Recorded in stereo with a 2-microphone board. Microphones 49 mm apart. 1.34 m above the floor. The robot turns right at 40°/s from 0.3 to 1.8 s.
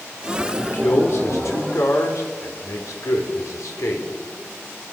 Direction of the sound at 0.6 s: 40° left (ahead or behind).